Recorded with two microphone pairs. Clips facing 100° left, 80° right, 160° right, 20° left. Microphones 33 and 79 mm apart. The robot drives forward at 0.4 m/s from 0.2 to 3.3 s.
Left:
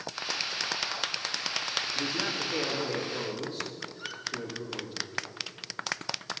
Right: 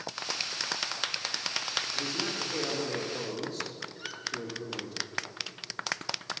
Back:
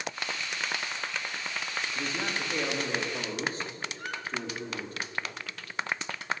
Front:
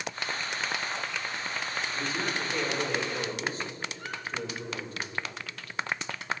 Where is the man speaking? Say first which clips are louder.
Left 2 dB, front 1 dB; 155° left, 1.9 m; by 5.0 s 160° left, 2.5 m.